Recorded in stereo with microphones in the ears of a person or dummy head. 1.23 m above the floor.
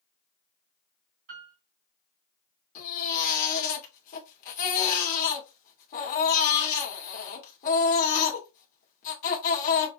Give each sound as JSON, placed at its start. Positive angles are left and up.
{"t": 1.3, "sound": "a piano", "side_deg": -60, "distance_m": 3.0}
{"t": 2.8, "sound": "a baby crying", "side_deg": 45, "distance_m": 1.7}